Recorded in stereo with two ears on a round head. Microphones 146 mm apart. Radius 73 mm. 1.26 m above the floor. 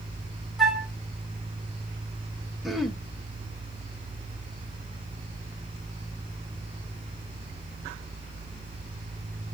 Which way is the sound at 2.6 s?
Centre (ahead or behind).